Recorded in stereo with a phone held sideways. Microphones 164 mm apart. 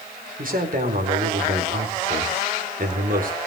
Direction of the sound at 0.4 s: 60° right (ahead or behind).